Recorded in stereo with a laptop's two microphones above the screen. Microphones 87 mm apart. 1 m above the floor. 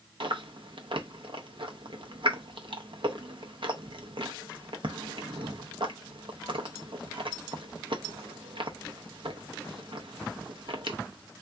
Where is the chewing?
75° right (ahead or behind), 0.6 m.